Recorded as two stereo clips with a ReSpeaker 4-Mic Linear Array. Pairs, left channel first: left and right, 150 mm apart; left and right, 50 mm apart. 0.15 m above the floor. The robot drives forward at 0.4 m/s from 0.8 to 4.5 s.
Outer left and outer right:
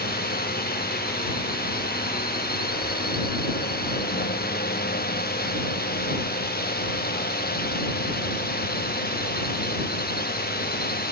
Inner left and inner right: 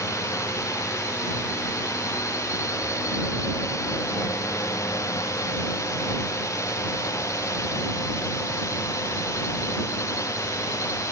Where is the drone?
85° left.